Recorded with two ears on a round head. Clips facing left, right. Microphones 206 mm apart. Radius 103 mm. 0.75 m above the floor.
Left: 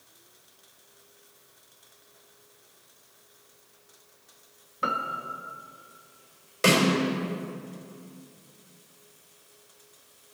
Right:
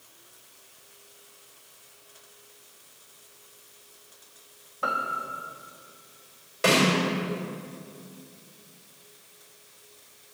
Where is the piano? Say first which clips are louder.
Even; 35° left (ahead or behind), 1.1 m.